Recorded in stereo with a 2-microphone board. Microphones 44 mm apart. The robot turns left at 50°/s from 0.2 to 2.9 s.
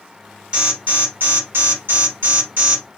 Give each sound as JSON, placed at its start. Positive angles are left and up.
{"t": 0.5, "sound": "an alarm", "azimuth_deg": -20, "distance_m": 2.5}